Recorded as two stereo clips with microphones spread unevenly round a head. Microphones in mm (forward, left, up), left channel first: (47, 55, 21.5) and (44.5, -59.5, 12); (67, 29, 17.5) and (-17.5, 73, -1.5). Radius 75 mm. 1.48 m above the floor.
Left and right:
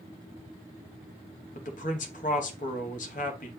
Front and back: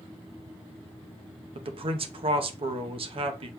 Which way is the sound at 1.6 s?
130° left.